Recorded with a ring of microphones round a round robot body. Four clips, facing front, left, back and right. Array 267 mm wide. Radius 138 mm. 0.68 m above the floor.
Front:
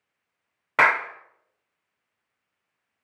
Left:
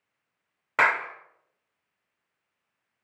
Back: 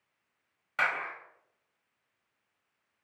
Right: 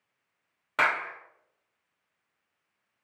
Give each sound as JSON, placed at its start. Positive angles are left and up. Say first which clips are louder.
{"t": 0.8, "sound": "a clap", "louder": "left 3 dB, front 11 dB", "azimuth_deg": 15, "distance_m": 1.4}